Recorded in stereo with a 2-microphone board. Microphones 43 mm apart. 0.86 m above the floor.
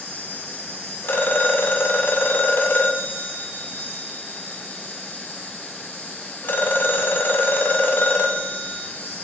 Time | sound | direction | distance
0.0 | an insect | 70° left (ahead or behind) | 5 m
1.0 | a phone ringing | 60° left (ahead or behind) | 2 m